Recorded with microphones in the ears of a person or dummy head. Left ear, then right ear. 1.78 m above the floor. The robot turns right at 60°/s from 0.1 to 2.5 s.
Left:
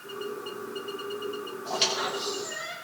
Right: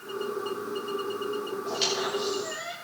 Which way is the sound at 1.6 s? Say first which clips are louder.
Left 2 dB; 20° left (ahead or behind).